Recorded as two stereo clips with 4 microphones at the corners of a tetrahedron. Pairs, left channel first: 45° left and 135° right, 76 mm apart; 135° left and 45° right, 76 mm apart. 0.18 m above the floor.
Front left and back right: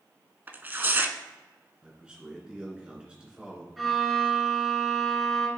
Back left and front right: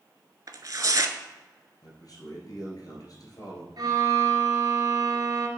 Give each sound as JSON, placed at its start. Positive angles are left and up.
{"t": 0.5, "sound": "tearing paper", "azimuth_deg": -75, "distance_m": 0.6}
{"t": 1.8, "sound": "a man speaking", "azimuth_deg": 150, "distance_m": 2.0}
{"t": 3.8, "sound": "a violin", "azimuth_deg": -45, "distance_m": 1.4}